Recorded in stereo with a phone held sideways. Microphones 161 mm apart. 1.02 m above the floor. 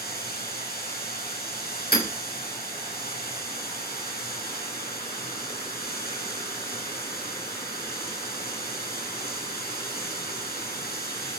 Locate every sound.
0.0 s running water: 70° left (ahead or behind), 7 m
1.9 s hammering: 70° left (ahead or behind), 6 m